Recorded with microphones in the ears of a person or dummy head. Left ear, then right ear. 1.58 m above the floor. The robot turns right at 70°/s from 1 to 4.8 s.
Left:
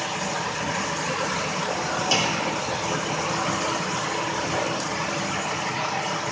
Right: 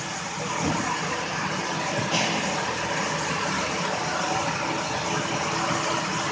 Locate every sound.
2.1 s a clunk: 70° left (ahead or behind), 0.7 m; by 2.5 s 80° left, 0.7 m